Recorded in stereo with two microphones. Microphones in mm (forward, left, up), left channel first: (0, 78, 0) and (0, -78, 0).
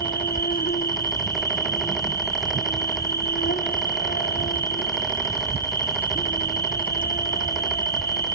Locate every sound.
0.0 s an insect: 70° left (ahead or behind), 1.5 m